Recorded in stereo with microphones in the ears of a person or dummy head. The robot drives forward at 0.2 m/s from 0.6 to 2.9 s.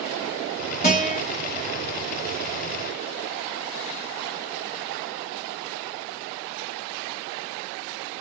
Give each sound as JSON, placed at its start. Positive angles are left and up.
{"t": 0.8, "sound": "a guitar", "side_deg": 45, "distance_m": 1.1}